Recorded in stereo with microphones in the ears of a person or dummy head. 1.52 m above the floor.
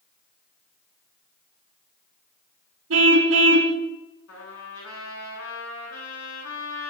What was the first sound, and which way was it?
A car horn, 75° right (ahead or behind).